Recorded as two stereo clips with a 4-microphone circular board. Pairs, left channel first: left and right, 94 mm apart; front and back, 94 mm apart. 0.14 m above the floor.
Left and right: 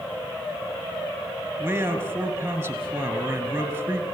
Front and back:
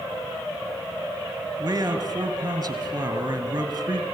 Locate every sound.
1.6 s a man speaking: 140° right, 2 m